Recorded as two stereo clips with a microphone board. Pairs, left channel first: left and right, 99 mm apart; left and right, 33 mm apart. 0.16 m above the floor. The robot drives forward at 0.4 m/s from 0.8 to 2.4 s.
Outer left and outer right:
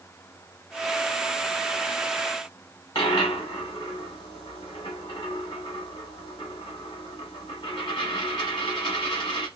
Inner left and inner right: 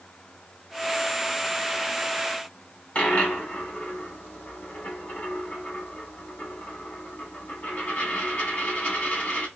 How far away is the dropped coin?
About 3 m.